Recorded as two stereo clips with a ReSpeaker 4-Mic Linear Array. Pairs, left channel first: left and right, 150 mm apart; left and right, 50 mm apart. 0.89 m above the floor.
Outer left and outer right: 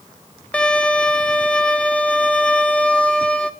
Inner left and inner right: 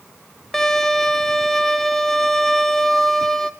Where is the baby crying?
No baby crying in this recording.